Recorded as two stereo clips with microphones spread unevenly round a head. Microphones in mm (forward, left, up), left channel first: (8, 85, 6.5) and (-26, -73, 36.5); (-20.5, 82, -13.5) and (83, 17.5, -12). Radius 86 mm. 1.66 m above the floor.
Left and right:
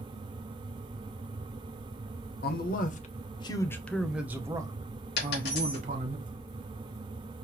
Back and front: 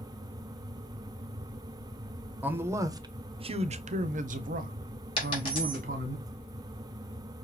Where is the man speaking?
45° left, 0.9 m; by 6.2 s 55° right, 1.5 m.